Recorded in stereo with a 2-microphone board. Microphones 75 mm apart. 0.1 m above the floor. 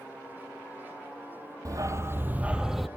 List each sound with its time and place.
1.6 s a dog barking: 50° right (ahead or behind), 1.4 m; by 2.9 s centre (ahead or behind), 1.3 m